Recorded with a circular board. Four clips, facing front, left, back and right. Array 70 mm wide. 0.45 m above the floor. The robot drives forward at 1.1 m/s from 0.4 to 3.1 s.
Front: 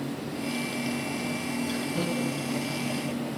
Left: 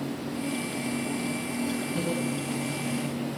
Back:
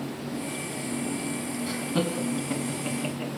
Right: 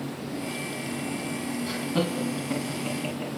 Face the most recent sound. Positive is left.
turn(degrees=-145)